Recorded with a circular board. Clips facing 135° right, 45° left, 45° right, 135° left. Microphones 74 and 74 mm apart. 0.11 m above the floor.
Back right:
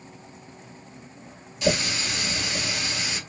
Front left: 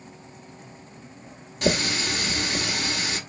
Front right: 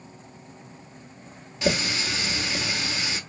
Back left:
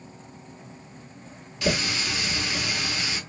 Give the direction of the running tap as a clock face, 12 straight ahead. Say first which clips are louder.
Front left 1 dB, front right 1 dB; 11 o'clock.